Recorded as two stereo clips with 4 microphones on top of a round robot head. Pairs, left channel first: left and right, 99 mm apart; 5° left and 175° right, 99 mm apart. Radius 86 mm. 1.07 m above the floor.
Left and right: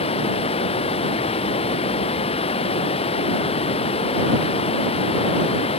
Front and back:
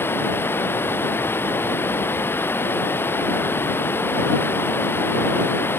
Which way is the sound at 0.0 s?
75° left.